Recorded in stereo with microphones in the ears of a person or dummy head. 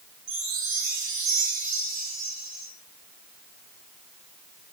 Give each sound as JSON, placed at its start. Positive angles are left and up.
{"t": 0.3, "sound": "a chime", "side_deg": -70, "distance_m": 2.0}